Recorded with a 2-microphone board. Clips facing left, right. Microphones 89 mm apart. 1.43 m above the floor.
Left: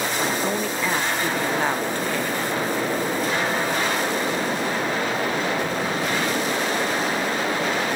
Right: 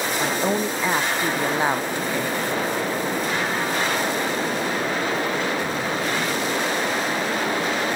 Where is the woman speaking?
15° right (ahead or behind), 0.6 m.